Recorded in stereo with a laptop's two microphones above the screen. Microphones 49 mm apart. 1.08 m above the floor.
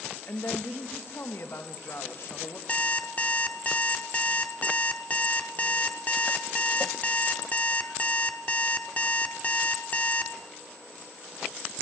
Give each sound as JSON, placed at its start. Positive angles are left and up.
{"t": 0.3, "sound": "a woman speaking", "side_deg": 50, "distance_m": 1.3}
{"t": 2.7, "sound": "an alarm clock", "side_deg": 30, "distance_m": 0.9}